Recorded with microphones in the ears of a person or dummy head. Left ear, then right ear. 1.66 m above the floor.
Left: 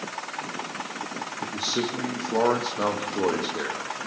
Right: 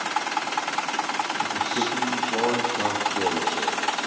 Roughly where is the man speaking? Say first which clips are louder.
Right 3 dB; left.